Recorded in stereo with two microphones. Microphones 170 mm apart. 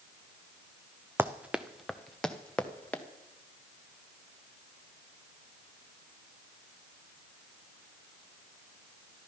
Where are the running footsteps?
15° right (ahead or behind), 0.7 m; by 3.0 s 10° left (ahead or behind), 1.6 m.